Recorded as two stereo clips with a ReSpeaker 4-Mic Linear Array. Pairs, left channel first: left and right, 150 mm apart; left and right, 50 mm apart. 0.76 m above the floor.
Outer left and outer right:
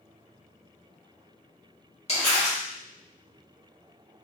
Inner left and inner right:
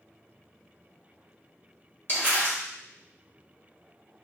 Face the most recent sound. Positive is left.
turn(degrees=45)  # may be behind; listen again after turning